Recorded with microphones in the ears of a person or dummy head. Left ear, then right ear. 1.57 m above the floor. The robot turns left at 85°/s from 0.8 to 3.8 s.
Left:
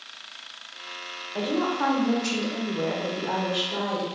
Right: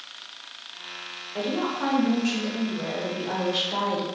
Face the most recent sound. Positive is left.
turn(degrees=-30)